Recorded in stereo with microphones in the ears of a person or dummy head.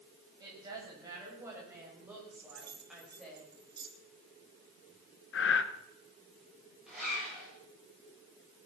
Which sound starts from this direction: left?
Breathing, at 5.3 s.